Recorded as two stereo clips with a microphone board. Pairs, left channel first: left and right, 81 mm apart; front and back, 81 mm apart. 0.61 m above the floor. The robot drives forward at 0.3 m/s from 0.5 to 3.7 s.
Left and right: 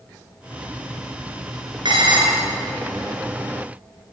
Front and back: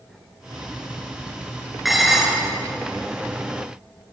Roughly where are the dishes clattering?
Right.